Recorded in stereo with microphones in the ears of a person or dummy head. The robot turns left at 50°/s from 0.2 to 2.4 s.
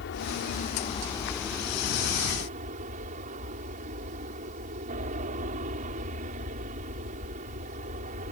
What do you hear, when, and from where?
0.0 s an aircraft: 65° left; by 8.3 s 45° right